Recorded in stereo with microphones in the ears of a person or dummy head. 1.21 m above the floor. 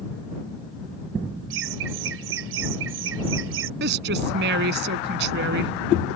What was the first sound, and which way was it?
Laughter, 70° right (ahead or behind).